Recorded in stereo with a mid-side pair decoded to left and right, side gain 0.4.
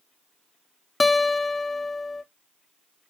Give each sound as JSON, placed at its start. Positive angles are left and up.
{"t": 1.0, "sound": "a guitar", "azimuth_deg": 25, "distance_m": 0.5}